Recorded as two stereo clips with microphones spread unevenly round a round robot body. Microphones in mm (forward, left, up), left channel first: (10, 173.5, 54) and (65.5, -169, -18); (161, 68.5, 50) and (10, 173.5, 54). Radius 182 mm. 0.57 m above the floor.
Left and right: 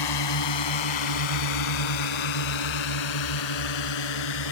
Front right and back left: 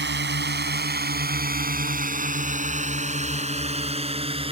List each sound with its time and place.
0.0 s a drone: 130° left; by 4.5 s 85° left